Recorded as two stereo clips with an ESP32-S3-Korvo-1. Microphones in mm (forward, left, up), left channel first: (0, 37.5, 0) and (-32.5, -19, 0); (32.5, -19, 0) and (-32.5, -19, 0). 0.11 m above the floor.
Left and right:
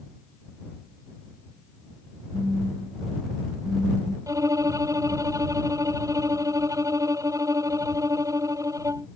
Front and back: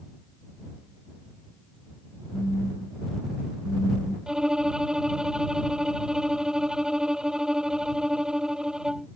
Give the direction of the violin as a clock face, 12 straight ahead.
3 o'clock.